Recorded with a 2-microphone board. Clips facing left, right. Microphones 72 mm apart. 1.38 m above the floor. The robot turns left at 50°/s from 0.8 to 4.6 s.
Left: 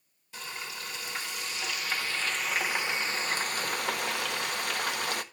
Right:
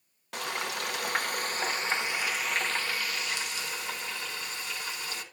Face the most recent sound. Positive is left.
turn(degrees=75)